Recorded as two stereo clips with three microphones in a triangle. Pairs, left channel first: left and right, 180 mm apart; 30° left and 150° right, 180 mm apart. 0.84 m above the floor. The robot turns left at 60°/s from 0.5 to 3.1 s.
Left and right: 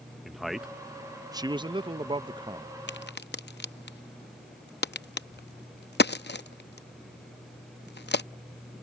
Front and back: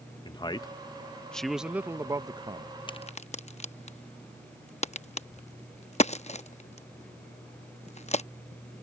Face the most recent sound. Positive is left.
turn(degrees=80)